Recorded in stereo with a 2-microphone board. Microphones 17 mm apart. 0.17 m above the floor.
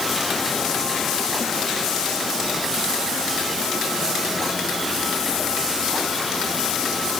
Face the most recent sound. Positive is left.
No sound to turn to.